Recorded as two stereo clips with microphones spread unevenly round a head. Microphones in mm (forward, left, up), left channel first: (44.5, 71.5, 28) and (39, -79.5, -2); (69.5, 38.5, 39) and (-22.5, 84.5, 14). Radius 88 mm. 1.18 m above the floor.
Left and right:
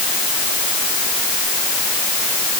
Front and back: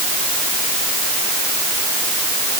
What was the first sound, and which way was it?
Only background noise.